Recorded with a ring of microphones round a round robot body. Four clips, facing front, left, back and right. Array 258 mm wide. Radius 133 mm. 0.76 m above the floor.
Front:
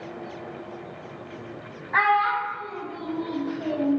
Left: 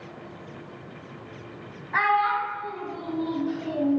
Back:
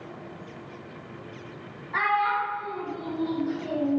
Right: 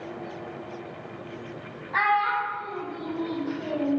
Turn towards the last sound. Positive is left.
turn(degrees=-20)